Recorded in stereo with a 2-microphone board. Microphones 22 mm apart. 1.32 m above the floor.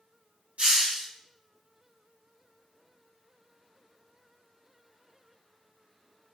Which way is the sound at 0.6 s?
85° right.